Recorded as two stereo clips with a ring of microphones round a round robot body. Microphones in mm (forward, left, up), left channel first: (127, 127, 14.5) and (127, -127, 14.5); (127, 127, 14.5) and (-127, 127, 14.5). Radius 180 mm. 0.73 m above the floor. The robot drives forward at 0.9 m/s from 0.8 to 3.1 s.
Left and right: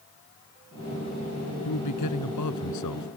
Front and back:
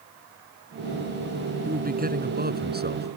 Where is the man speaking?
125° left; by 3.1 s 130° left.